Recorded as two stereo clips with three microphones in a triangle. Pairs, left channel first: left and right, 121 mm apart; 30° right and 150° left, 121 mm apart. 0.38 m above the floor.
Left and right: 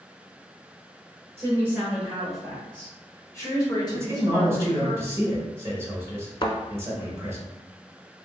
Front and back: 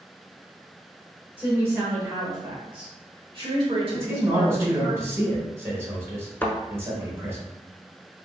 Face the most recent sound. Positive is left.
turn(degrees=40)